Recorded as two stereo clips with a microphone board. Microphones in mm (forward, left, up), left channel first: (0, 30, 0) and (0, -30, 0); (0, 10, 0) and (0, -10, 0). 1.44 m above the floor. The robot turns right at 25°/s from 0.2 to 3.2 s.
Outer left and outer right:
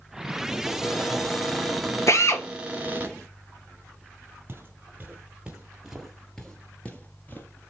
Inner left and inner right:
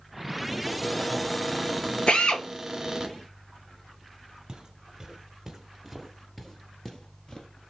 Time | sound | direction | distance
0.6 | a cupboard door | 150° left | 2 m
2.1 | a drill | 60° left (ahead or behind) | 1.4 m
4.5 | footsteps | 40° right (ahead or behind) | 2.5 m